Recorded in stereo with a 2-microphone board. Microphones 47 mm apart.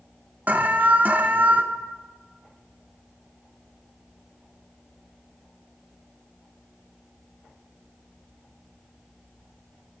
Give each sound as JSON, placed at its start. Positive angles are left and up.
{"t": 0.5, "sound": "an alarm", "side_deg": -40, "distance_m": 0.7}